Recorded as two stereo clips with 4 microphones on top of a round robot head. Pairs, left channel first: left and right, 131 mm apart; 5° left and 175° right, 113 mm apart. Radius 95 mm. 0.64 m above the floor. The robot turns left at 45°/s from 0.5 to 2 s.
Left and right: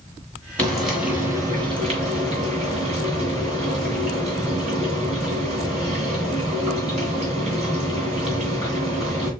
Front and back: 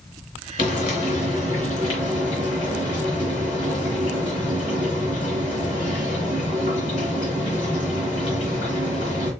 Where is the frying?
10° left, 2 m; by 9.3 s 55° right, 2 m.